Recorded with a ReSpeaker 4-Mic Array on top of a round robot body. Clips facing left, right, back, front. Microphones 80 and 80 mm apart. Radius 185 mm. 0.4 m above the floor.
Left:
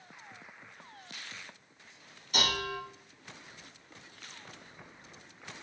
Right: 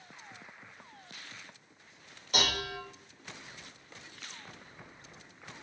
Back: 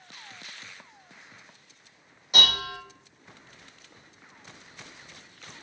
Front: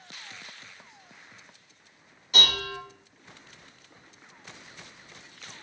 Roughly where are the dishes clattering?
Right.